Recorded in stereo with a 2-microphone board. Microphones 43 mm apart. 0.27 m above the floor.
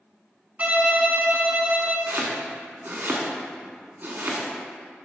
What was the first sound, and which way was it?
A violin, 35° right (ahead or behind).